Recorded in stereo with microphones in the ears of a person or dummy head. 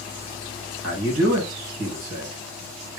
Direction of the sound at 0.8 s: 70° right (ahead or behind).